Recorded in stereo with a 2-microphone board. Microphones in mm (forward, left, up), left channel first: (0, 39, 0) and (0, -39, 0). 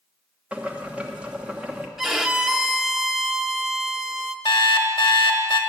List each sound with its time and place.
0.5 s boiling: 15° right (ahead or behind), 1.1 m
2.0 s a violin: 5° right (ahead or behind), 0.7 m
4.5 s an alarm clock: 80° left, 1.3 m